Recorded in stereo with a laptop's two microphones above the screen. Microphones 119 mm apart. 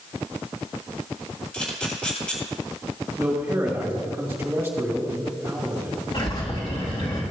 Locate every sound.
1.5 s a camera shutter: 10° left (ahead or behind), 2.5 m
3.2 s a man speaking: 20° right (ahead or behind), 1.8 m
6.1 s a bird: 45° left (ahead or behind), 1.9 m